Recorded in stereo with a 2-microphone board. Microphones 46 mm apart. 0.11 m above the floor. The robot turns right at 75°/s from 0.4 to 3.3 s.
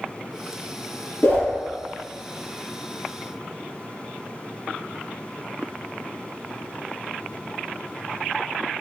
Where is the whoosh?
55° left (ahead or behind), 1.5 m.